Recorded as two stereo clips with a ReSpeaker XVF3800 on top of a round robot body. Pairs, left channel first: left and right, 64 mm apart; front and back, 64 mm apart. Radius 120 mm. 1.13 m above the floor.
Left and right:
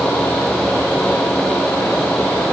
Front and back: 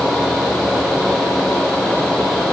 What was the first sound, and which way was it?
Only background noise.